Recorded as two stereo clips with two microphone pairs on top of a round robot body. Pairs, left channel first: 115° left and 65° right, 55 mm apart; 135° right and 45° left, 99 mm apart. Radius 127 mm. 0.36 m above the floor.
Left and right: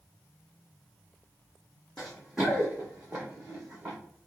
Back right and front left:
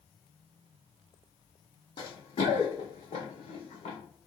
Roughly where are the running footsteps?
Behind.